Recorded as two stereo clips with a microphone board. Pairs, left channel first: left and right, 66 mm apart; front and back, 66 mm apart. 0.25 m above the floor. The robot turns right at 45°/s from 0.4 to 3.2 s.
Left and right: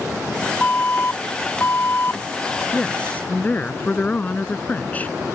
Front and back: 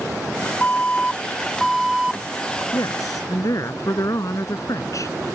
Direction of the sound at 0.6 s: 40° left.